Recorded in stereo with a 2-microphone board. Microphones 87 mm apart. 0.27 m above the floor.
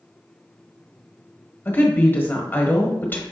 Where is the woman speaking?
25° left (ahead or behind), 0.9 m.